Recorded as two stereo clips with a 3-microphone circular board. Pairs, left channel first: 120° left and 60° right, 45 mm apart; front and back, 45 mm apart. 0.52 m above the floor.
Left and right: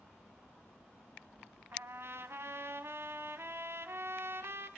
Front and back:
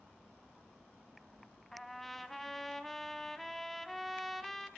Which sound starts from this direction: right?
A trumpet, at 1.7 s.